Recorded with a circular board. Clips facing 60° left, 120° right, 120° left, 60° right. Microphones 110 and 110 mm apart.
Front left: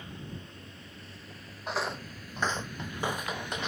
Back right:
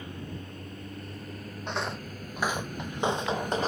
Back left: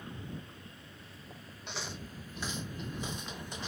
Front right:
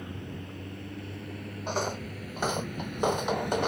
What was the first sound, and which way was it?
A vehicle, 80° right.